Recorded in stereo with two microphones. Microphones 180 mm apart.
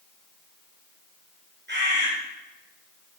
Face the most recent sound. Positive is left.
turn(degrees=-85)